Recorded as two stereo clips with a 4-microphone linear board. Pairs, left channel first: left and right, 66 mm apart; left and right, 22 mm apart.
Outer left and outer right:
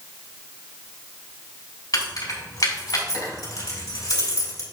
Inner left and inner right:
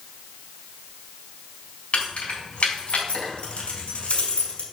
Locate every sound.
1.9 s keys jangling: 65° left (ahead or behind), 4 m